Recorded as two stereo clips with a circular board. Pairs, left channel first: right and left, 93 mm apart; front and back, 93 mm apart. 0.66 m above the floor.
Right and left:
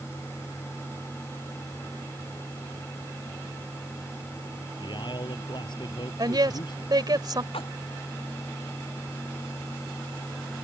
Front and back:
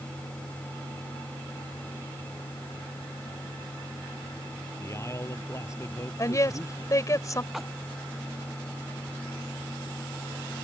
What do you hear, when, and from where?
4.8 s a man speaking: 60° right; by 7.2 s 55° right
6.2 s a woman speaking: 50° left
7.5 s a splash: 90° right